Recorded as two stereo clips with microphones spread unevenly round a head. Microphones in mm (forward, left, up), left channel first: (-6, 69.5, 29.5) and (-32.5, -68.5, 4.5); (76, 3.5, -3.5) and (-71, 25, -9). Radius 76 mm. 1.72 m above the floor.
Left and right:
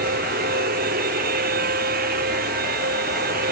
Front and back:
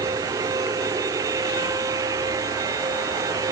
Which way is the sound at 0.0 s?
120° right.